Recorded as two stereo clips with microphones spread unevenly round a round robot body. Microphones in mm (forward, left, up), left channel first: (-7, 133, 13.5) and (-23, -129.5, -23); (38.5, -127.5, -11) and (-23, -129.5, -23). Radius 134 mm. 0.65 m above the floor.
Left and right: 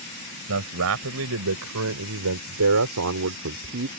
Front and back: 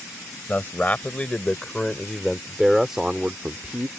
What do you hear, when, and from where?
0.5 s a man speaking: 60° right; by 3.9 s 125° right